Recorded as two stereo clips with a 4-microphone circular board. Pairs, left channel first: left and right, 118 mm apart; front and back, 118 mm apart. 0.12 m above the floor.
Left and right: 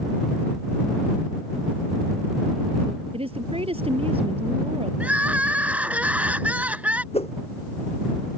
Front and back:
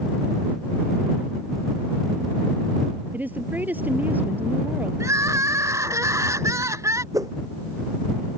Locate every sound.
3.1 s a woman speaking: 105° right
5.0 s crying: 155° right
7.1 s a whoosh: 120° left